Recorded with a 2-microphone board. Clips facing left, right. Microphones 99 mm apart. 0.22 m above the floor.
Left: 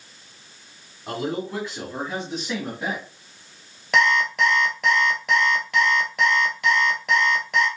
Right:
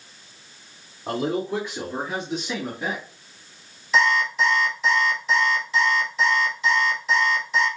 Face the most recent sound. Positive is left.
turn(degrees=70)  # may be behind; listen again after turning